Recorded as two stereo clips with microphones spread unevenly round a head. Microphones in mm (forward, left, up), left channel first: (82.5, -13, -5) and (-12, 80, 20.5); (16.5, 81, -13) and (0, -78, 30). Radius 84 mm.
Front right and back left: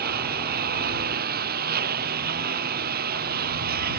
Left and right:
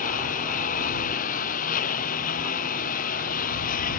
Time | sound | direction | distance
0.0 | a lawn mower | 130° left | ?